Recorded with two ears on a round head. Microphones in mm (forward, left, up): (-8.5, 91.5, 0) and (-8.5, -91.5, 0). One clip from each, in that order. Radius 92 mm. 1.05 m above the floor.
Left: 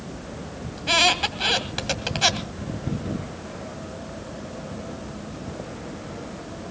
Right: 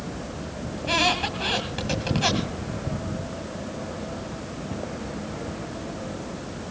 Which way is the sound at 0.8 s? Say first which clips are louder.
Left 3 dB; 40° left (ahead or behind).